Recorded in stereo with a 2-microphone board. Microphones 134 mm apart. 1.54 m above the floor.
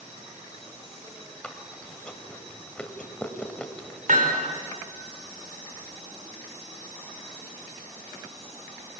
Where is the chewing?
10° left (ahead or behind), 2 m.